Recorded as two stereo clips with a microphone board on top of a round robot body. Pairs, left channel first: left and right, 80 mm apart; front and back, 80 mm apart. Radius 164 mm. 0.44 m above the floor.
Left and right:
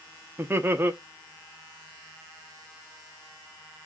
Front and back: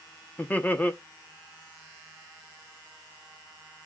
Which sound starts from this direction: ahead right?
Laughter, at 0.4 s.